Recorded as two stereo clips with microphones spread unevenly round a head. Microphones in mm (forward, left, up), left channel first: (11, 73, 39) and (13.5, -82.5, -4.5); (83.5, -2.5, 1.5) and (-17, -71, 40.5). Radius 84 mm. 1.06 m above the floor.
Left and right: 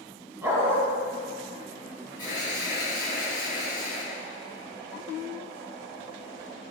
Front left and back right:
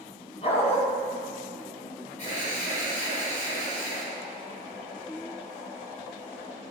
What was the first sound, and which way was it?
A dog barking, 10° right.